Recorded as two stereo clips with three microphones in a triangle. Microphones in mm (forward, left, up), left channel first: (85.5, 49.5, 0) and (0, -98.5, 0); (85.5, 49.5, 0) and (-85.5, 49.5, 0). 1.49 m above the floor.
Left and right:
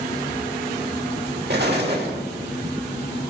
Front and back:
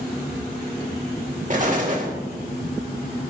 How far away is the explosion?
About 1.9 m.